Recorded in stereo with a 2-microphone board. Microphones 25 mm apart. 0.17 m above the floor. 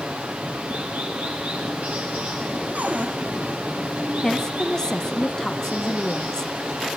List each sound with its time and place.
0.0 s running water: 70° right (ahead or behind), 4 m
2.8 s a cupboard door: 80° right, 3 m
4.2 s a woman speaking: 20° left (ahead or behind), 1.1 m